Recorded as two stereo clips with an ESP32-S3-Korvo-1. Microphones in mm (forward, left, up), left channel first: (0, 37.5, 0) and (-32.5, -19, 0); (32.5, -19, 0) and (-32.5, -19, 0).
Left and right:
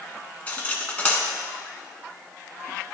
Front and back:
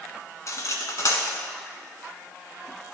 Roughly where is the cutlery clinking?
Ahead.